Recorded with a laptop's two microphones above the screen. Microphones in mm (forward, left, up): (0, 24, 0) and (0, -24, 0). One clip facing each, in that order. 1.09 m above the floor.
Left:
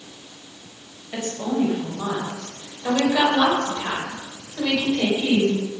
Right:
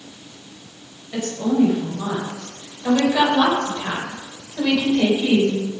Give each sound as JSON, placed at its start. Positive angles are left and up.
{"t": 1.1, "sound": "a woman speaking", "side_deg": 15, "distance_m": 5.5}